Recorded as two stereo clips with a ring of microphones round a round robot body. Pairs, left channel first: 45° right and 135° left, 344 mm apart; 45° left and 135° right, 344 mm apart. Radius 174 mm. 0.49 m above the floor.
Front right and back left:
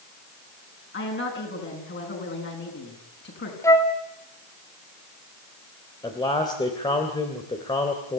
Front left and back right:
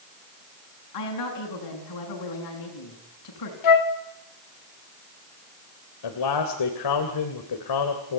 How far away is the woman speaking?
About 6.5 m.